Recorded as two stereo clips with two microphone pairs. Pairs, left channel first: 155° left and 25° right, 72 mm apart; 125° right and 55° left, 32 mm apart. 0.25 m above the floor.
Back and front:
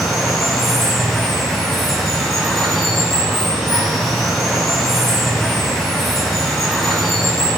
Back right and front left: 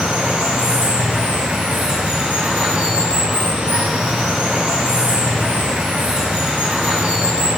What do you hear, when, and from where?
0.0 s running water: 70° left, 0.7 m